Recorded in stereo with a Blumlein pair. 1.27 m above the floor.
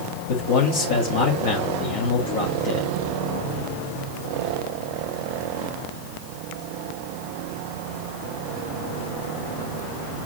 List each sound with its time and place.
0.3 s a man speaking: 50° left, 1.9 m